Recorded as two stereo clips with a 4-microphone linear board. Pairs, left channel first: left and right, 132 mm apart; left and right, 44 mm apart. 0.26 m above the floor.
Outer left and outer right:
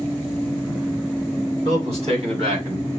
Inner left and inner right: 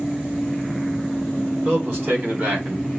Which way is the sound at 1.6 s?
50° right (ahead or behind).